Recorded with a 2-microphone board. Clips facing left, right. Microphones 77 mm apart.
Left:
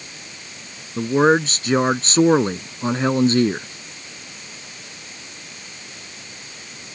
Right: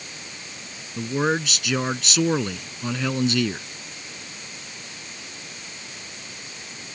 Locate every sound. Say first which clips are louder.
1.0 s a man speaking: left 8 dB; 35° left (ahead or behind)